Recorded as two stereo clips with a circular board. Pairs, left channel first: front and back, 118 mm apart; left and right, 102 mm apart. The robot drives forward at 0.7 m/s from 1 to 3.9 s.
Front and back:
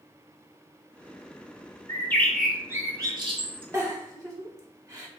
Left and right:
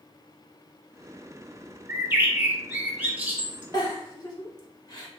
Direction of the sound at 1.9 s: 35° right.